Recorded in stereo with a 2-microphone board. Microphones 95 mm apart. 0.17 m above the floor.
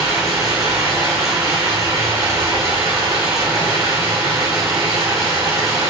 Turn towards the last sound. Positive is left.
turn(degrees=-35)  # may be behind; listen again after turning